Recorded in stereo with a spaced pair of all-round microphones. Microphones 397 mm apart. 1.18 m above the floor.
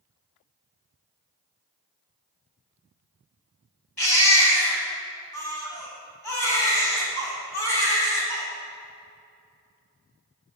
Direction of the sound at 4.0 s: 80° left.